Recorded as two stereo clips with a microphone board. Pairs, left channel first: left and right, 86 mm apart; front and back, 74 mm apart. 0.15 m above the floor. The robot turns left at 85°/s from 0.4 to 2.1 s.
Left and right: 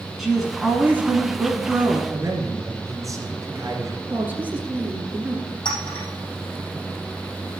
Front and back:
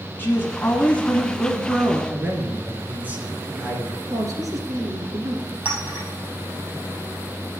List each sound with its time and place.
0.2 s a woman speaking: straight ahead, 1.2 m; by 2.0 s 140° right, 1.2 m
2.1 s a man speaking: 120° right, 2.5 m
4.1 s a woman speaking: 155° right, 2.5 m
5.7 s a clink: 110° left, 3.5 m